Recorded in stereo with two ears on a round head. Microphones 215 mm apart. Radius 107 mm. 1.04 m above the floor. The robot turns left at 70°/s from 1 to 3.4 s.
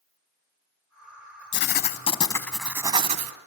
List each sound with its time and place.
1.5 s writing: 75° left, 1.2 m; by 3.3 s 50° right, 1.2 m